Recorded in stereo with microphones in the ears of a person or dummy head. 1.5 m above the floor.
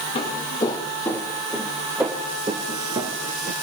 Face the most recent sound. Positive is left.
turn(degrees=-40)  # may be behind; listen again after turning